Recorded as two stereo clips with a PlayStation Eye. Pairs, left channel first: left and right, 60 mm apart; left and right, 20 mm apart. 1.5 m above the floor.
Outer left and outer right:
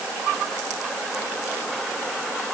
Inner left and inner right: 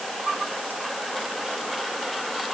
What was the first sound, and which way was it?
Only background noise.